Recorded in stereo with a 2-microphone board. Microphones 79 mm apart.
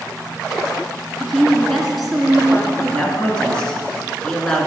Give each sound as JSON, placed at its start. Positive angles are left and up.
{"t": 1.2, "sound": "a woman speaking", "side_deg": 0, "distance_m": 1.8}
{"t": 2.8, "sound": "a man speaking", "side_deg": 10, "distance_m": 2.0}